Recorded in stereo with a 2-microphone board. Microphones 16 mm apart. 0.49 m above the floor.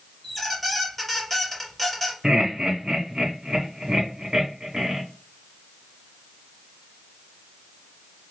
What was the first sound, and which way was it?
A squeak, 5° left (ahead or behind).